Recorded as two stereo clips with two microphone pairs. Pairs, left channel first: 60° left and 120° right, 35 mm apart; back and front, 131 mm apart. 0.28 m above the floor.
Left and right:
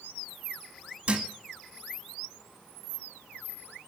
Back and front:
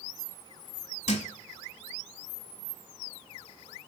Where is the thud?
170° right, 0.9 m.